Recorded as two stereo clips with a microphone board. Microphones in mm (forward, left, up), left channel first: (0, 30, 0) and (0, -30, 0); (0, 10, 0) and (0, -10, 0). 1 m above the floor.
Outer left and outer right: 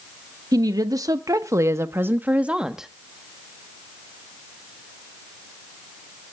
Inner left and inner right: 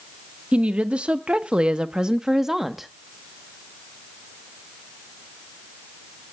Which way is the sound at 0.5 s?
80° right.